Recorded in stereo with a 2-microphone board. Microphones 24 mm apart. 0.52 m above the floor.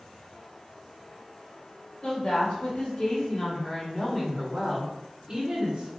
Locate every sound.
2.0 s a woman speaking: 60° left (ahead or behind), 1.9 m; by 5.9 s 35° right (ahead or behind), 1.2 m